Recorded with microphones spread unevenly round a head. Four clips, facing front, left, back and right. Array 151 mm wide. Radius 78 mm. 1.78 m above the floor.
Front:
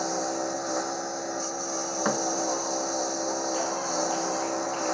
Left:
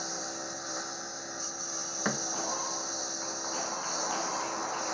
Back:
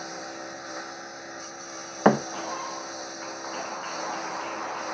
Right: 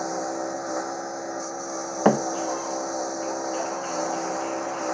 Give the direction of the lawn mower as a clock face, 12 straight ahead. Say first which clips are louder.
Right 11 dB, front 9 dB; 2 o'clock.